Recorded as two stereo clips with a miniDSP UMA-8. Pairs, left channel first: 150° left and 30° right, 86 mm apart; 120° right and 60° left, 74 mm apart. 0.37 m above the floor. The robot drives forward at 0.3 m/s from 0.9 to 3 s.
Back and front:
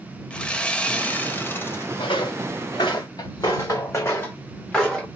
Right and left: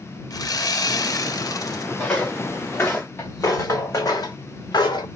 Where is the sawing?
135° right, 0.5 m; by 1.9 s 155° right, 0.7 m.